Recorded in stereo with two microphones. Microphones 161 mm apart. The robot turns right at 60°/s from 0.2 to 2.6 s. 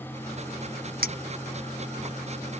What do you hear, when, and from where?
1.0 s a clink: 70° right (ahead or behind); by 2.1 s 5° right (ahead or behind)